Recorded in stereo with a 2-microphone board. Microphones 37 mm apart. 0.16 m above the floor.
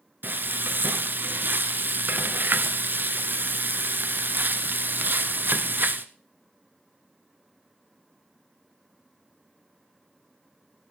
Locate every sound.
0.2 s frying: 60° right (ahead or behind), 0.7 m